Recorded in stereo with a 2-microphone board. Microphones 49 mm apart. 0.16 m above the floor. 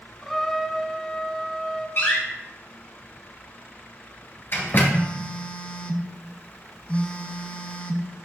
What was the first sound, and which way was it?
A trumpet, 5° left (ahead or behind).